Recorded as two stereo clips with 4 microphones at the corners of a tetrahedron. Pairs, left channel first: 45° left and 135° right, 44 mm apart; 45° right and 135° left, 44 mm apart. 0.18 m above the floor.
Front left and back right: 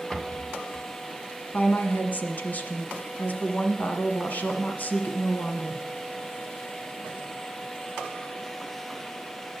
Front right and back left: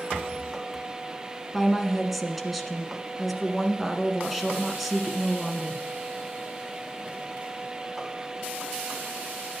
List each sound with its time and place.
0.1 s a rattle: 25° left, 1.0 m
1.5 s a woman speaking: 50° left, 1.4 m